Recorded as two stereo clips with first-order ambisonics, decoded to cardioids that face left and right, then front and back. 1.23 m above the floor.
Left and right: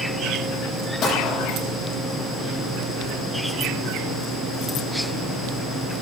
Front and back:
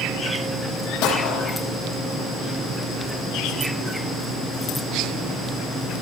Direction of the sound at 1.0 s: 20° left.